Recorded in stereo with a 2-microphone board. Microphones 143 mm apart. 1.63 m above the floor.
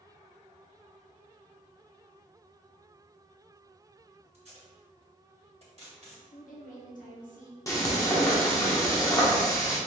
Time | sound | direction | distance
4.3 | tape being pulled | 50° right (ahead or behind) | 1.6 m
6.3 | a woman speaking | 65° left (ahead or behind) | 1.0 m
7.7 | frying | 20° left (ahead or behind) | 1.1 m